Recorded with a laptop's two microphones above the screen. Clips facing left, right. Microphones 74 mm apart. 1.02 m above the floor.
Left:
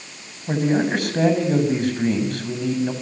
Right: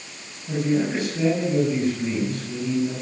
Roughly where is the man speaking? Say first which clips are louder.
Left 3 dB; left.